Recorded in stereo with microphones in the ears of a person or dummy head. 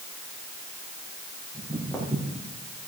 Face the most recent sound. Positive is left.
turn(degrees=10)  # may be behind; listen again after turning